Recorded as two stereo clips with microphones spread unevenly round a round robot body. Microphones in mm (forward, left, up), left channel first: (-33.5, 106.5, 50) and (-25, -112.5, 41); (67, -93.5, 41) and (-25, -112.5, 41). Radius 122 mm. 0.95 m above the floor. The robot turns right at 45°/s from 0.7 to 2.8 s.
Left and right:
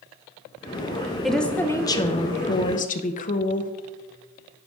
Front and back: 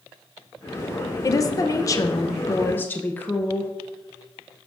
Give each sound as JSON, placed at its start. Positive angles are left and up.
{"t": 1.2, "sound": "a woman speaking", "azimuth_deg": -5, "distance_m": 0.6}